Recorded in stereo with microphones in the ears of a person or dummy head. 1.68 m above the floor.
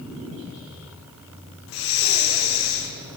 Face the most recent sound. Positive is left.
turn(degrees=80)